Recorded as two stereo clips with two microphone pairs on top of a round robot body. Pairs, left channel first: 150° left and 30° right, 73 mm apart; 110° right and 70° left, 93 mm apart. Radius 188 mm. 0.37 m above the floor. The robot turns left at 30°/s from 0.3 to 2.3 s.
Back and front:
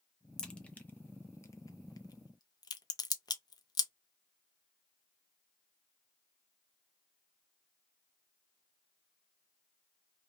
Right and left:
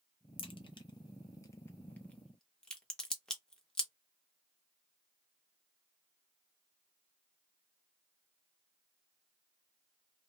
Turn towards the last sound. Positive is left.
turn(degrees=165)